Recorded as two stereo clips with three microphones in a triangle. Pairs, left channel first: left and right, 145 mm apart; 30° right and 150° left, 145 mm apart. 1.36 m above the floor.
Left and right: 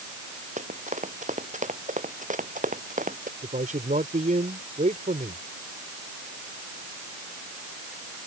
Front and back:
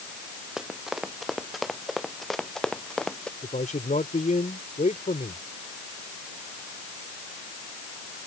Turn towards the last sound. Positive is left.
turn(degrees=-60)